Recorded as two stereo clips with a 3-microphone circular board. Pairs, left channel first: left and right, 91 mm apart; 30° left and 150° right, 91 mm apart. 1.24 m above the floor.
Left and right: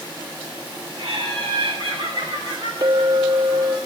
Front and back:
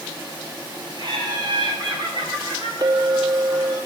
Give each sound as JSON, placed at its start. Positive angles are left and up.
{"t": 1.0, "sound": "laughter", "azimuth_deg": -110, "distance_m": 9.0}
{"t": 2.8, "sound": "a clink", "azimuth_deg": -120, "distance_m": 1.0}